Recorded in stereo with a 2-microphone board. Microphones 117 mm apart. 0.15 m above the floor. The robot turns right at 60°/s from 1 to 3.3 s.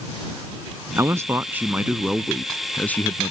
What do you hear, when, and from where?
1.0 s a man speaking: 25° right (ahead or behind); by 3.3 s 20° left (ahead or behind)